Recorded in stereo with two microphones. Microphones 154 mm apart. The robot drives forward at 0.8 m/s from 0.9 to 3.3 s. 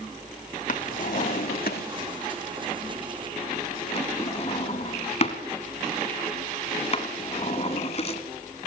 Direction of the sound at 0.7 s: 60° left (ahead or behind).